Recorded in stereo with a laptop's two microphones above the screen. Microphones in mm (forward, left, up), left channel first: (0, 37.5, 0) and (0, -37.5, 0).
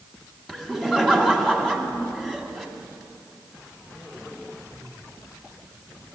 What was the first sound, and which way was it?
Laughter, 5° left (ahead or behind).